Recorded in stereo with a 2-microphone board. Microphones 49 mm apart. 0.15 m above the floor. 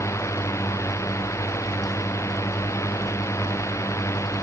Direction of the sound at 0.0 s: 80° left.